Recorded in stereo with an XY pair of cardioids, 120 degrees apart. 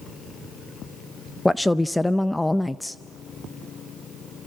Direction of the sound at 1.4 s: 10° left.